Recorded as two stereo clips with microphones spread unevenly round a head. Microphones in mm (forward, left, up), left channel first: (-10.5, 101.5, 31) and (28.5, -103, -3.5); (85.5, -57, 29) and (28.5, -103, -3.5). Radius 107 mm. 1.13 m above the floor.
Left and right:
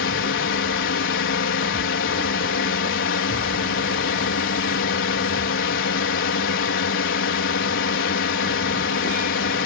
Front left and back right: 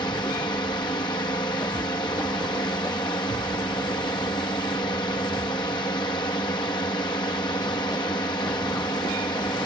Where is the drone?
90° left.